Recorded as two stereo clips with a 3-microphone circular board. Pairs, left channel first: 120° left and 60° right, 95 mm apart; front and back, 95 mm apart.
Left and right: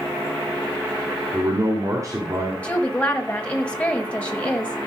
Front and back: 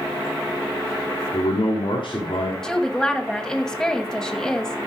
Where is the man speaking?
5° right, 2.5 m.